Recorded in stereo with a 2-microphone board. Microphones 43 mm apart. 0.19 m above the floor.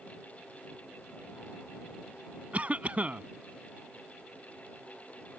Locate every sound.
2.5 s a cough: 35° right (ahead or behind)